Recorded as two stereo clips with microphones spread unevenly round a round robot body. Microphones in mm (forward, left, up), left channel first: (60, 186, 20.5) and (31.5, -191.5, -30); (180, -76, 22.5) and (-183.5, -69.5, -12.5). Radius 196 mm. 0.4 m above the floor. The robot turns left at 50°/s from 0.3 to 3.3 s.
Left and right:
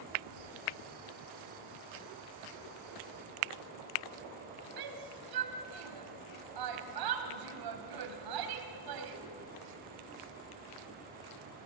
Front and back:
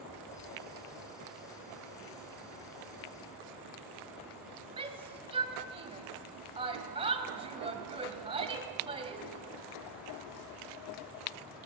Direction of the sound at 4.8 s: 110° right.